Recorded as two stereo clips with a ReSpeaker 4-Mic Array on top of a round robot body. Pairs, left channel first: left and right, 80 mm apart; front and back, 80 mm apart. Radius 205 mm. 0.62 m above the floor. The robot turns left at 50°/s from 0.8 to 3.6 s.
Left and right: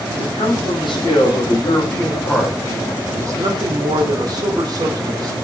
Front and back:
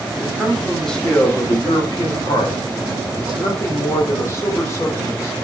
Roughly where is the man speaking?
Left.